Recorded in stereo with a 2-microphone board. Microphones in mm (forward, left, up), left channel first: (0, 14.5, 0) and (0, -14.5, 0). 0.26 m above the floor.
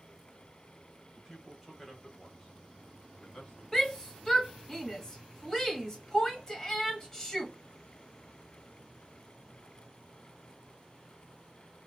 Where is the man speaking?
15° right (ahead or behind), 1.4 m; by 3.6 s 40° left (ahead or behind), 1.7 m.